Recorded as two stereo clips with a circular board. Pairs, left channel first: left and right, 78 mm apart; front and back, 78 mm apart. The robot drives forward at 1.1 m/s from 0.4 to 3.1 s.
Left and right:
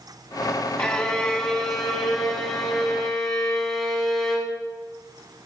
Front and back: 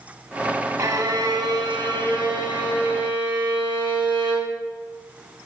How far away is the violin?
About 1.2 m.